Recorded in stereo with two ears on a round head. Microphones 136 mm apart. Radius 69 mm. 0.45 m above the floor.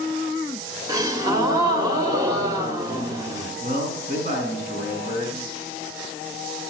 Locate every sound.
0.9 s a gasp: 25° right (ahead or behind), 1.7 m
3.6 s a man speaking: 55° right (ahead or behind), 5.5 m